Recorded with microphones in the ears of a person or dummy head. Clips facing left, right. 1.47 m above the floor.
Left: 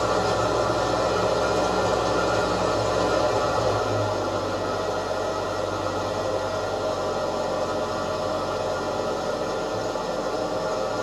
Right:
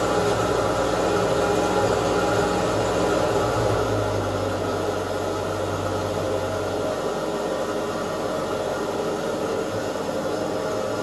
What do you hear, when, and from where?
0.0 s an engine running: 30° right (ahead or behind), 1.2 m